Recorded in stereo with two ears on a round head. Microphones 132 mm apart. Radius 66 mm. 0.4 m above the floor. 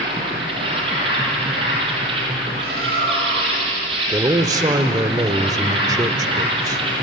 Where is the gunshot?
No gunshot in this recording.